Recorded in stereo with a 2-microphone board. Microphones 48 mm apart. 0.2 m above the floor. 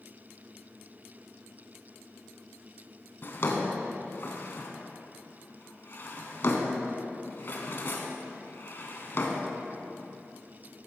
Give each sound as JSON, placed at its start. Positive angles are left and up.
{"t": 3.2, "sound": "a drawer", "side_deg": 45, "distance_m": 0.9}